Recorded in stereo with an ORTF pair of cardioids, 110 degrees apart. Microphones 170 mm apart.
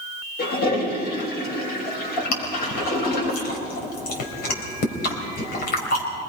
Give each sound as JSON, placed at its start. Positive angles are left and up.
{"t": 0.4, "sound": "a toilet flushing", "azimuth_deg": 65, "distance_m": 6.0}
{"t": 2.3, "sound": "chewing", "azimuth_deg": 60, "distance_m": 4.0}